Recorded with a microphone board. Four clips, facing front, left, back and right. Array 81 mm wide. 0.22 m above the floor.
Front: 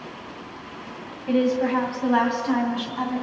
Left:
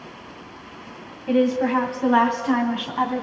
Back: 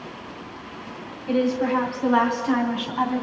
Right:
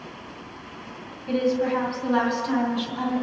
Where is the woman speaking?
60° left, 1.4 m; by 3.2 s 110° left, 1.9 m.